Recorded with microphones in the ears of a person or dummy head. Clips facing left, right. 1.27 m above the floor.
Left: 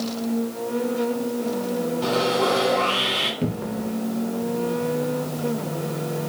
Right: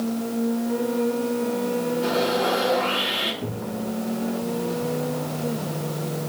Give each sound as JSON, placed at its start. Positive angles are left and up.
{"t": 2.0, "sound": "sawing", "side_deg": 60, "distance_m": 3.5}
{"t": 3.4, "sound": "a cupboard door", "side_deg": 45, "distance_m": 0.7}